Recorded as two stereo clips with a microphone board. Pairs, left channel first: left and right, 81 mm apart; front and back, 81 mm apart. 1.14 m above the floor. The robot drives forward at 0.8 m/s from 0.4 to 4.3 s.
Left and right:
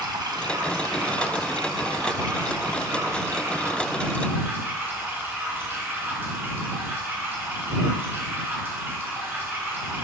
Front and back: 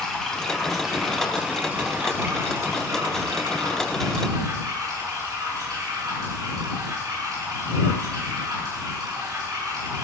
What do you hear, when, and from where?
0.0 s running water: 80° right, 1.9 m; by 10.0 s 150° right, 3.5 m